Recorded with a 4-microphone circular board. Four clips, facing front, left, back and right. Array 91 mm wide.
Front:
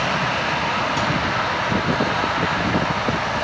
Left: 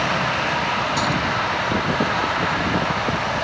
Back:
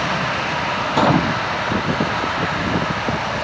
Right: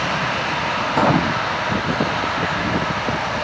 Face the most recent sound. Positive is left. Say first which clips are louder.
# right 4 dB, back 5 dB
turn(degrees=-145)